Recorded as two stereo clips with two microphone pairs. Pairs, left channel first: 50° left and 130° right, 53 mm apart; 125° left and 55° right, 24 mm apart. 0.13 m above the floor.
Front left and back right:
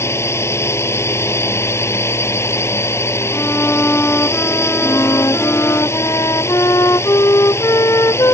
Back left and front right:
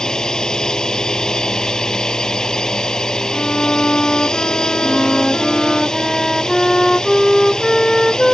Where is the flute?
50° left.